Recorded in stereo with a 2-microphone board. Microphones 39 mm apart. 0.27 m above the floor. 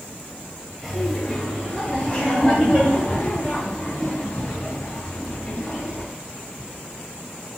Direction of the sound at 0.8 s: 5° right (ahead or behind).